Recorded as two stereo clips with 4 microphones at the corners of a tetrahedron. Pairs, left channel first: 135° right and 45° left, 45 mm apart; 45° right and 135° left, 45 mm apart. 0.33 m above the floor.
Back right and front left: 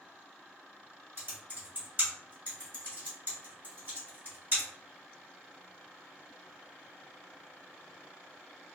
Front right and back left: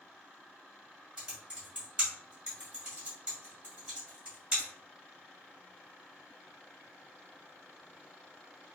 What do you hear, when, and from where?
1.2 s typing on a keyboard: 75° left, 1.9 m